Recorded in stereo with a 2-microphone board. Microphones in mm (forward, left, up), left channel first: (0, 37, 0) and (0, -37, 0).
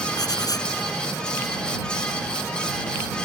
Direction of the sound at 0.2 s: 65° left (ahead or behind).